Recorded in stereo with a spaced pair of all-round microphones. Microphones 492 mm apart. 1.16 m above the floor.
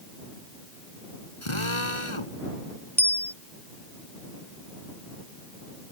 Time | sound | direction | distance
1.4 | a drill | 80° left | ?
3.0 | a bicycle bell | 5° right (ahead or behind) | ?